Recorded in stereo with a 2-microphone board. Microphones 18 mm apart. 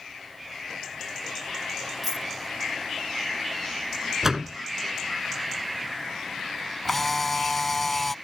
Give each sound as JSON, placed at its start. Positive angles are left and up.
{"t": 2.0, "sound": "a dropped coin", "side_deg": -15}
{"t": 4.2, "sound": "a door slam", "side_deg": -20}
{"t": 6.8, "sound": "a camera shutter", "side_deg": 10}